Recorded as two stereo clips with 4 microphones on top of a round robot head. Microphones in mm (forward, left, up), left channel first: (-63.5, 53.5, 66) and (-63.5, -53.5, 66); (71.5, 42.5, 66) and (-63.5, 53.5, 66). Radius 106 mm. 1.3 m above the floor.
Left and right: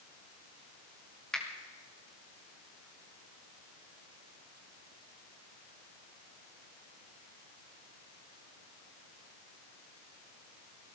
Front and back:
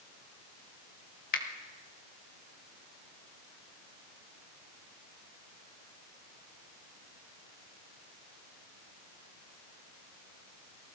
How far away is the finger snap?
About 1.4 m.